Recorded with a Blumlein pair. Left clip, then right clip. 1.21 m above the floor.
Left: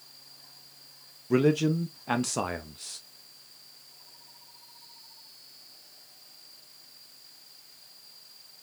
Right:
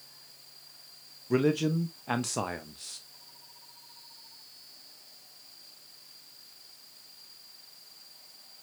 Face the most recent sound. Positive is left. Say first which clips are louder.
# left 3 dB
turn(degrees=5)